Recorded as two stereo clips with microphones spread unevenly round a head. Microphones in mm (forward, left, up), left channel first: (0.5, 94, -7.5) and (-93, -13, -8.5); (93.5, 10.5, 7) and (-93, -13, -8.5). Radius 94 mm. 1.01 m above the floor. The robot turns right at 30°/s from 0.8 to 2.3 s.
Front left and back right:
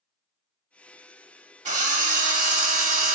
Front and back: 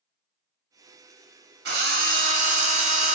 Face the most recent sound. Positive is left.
turn(degrees=-125)